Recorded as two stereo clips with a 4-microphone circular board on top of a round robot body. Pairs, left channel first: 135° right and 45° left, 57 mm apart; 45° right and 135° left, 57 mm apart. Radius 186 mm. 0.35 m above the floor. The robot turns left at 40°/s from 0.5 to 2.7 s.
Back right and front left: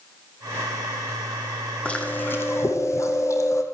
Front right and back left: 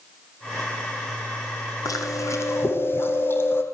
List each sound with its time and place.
1.9 s chewing: 65° right, 4 m; by 3.6 s 95° right, 4 m